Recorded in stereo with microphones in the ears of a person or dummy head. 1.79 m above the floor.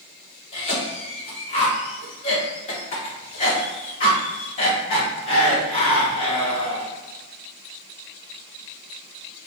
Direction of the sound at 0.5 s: 35° left (ahead or behind).